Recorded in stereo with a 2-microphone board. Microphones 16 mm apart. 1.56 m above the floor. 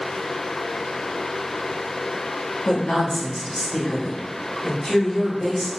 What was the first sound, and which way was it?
A woman speaking, 75° left (ahead or behind).